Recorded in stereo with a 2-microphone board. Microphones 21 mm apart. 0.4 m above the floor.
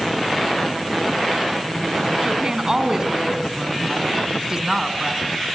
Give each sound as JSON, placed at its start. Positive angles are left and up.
{"t": 2.2, "sound": "a woman speaking", "side_deg": -30, "distance_m": 3.0}